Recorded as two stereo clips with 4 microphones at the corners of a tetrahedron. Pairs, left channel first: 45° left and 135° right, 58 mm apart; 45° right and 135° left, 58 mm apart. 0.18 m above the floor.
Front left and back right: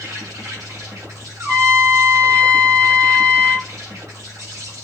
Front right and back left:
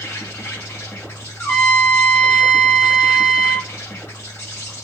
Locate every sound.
0.0 s an insect: 100° right, 2.5 m
1.4 s a trumpet: 105° right, 1.9 m